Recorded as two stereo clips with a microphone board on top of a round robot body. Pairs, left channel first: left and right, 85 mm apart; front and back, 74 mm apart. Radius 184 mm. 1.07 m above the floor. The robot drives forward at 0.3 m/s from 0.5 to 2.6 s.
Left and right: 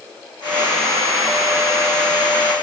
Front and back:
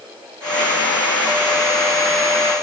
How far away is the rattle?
I don't hear a rattle.